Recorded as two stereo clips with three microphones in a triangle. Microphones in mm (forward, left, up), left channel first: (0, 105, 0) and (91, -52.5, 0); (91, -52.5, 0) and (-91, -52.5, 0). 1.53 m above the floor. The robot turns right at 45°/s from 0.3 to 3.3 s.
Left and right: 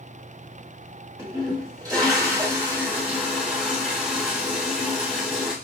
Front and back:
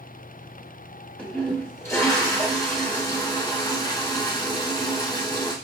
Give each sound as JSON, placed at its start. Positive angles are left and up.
{"t": 1.2, "sound": "a toilet flushing", "azimuth_deg": -75, "distance_m": 1.4}